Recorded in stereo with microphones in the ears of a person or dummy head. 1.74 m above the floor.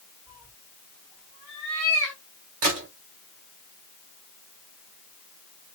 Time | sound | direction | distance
0.3 | a cat meowing | 15° right (ahead or behind) | 2.0 m
2.6 | a gunshot | 40° right (ahead or behind) | 2 m